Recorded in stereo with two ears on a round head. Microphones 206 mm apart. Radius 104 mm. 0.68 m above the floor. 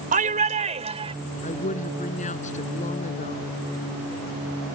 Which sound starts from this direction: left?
A woman speaking, at 1.4 s.